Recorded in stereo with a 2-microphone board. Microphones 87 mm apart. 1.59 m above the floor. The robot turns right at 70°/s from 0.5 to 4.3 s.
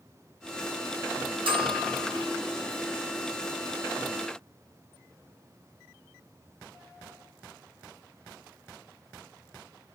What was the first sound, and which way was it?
A bell, 85° right.